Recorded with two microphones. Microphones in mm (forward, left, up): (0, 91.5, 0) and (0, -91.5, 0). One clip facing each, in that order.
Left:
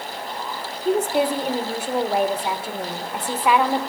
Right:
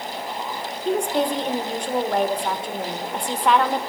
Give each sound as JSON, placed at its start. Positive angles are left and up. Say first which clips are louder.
{"t": 0.8, "sound": "a woman speaking", "louder": "left 2 dB", "side_deg": 5, "distance_m": 1.1}